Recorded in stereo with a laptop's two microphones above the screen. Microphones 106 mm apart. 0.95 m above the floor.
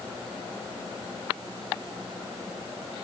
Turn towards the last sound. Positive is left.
No sound to turn to.